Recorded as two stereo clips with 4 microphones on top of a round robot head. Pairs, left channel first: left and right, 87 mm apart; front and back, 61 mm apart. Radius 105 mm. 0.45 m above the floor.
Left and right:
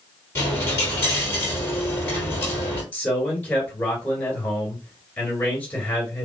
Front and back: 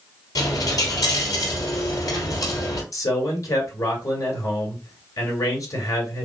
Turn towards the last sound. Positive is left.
turn(degrees=20)